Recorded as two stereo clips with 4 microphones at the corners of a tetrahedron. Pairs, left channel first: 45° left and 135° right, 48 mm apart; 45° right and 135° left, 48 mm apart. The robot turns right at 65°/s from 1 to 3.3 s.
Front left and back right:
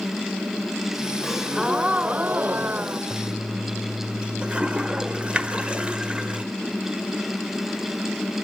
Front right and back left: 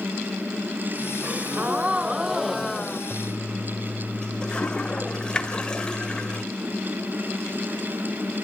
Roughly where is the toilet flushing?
Right.